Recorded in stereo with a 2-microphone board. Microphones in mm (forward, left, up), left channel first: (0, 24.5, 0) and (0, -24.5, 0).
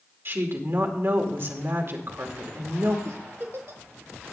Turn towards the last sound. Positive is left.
turn(degrees=-55)  # may be behind; listen again after turning